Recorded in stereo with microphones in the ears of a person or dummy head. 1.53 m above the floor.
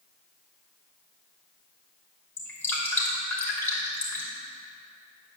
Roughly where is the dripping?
Centre.